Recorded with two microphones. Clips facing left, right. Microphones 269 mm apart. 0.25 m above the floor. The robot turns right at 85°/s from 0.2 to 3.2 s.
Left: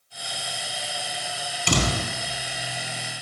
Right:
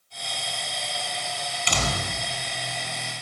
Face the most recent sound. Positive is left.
turn(degrees=-105)